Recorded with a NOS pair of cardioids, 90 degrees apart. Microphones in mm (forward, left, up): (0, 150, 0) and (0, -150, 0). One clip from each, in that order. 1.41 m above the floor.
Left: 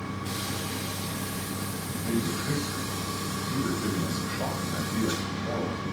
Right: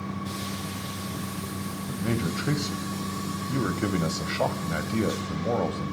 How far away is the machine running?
About 1.5 m.